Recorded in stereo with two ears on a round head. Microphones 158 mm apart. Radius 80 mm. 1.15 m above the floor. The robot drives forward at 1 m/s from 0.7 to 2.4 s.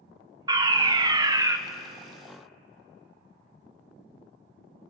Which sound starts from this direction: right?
A fire alarm, at 0.5 s.